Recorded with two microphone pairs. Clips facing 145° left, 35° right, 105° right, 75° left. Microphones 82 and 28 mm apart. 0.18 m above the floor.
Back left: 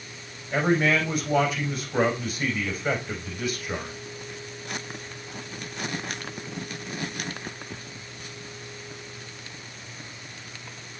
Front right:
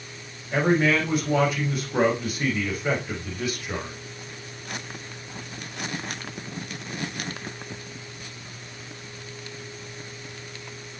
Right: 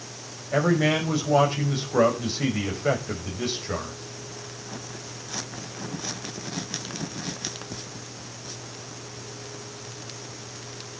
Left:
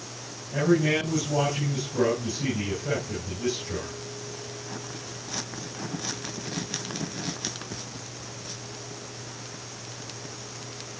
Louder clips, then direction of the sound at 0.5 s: Front right 1 dB, right 1 dB; 125° right.